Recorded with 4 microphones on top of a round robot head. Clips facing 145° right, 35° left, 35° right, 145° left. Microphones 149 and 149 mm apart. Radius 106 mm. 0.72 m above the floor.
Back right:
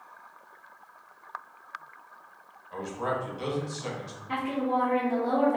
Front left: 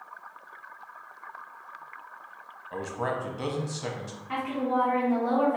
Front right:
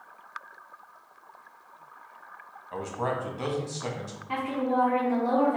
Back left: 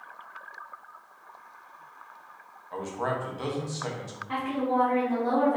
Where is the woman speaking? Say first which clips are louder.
Even, even; 110° right, 1.2 m.